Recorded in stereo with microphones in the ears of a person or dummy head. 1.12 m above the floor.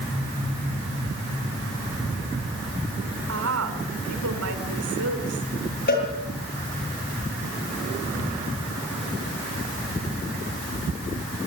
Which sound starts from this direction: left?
A cowbell, at 5.9 s.